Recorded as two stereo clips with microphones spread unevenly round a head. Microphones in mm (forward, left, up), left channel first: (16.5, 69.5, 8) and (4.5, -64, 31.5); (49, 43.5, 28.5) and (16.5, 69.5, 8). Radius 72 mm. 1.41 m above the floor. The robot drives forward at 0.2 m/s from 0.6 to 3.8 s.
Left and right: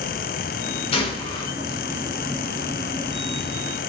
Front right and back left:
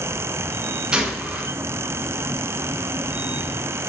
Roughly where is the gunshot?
Left.